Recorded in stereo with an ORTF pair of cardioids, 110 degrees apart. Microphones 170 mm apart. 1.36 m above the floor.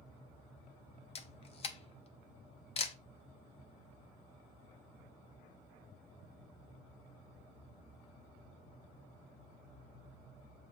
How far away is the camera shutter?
About 0.7 m.